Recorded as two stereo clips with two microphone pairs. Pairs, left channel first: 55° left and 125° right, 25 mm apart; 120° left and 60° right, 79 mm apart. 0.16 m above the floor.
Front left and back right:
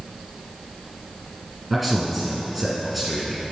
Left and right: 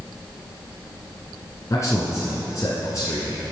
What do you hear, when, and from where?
1.7 s a man speaking: 150° left, 1.5 m